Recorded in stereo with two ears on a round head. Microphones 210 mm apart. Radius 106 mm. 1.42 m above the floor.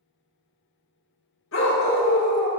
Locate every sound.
1.5 s a dog barking: 55° left (ahead or behind), 1.4 m